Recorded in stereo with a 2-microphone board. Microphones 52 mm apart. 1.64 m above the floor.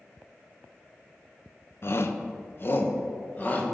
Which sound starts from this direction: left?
A shout, at 1.8 s.